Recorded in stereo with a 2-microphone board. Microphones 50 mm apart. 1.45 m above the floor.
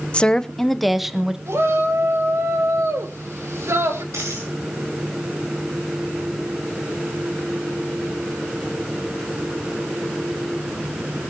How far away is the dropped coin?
About 8.5 m.